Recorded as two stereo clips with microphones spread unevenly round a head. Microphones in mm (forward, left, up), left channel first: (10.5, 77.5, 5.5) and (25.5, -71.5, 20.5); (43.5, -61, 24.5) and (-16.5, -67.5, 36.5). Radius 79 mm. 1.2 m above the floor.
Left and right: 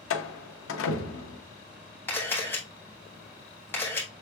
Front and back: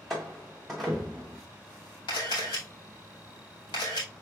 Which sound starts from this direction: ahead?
A camera shutter, at 2.1 s.